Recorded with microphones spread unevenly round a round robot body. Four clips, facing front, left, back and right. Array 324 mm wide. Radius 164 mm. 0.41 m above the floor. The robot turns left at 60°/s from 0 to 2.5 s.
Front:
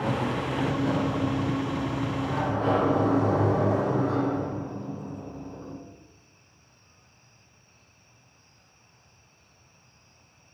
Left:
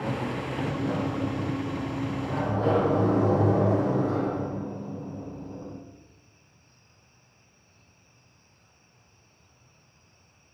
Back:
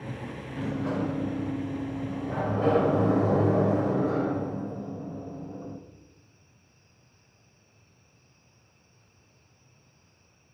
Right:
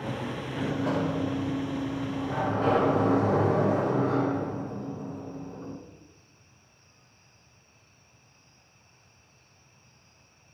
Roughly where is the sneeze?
I don't hear a sneeze.